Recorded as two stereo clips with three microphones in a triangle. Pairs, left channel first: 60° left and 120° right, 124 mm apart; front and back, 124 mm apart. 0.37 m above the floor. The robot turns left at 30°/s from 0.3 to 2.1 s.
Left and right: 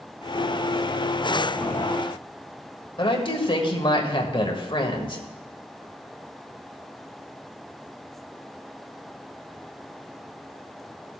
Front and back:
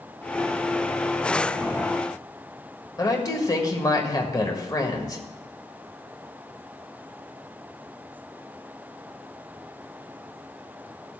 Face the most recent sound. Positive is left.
turn(degrees=45)